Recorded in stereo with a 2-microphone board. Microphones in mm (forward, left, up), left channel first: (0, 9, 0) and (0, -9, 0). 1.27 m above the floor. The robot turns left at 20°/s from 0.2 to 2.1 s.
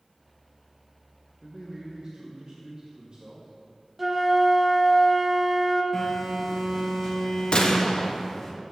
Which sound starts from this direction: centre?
A flute, at 4.0 s.